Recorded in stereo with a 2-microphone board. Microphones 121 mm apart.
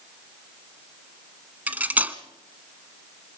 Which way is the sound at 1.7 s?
15° right (ahead or behind).